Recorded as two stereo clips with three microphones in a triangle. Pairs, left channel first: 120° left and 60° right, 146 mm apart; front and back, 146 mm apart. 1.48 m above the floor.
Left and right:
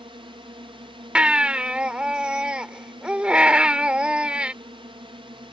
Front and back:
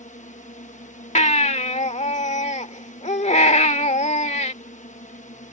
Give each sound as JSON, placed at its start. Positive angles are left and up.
{"t": 0.0, "sound": "a drone", "azimuth_deg": -10}
{"t": 1.1, "sound": "a baby crying", "azimuth_deg": 20}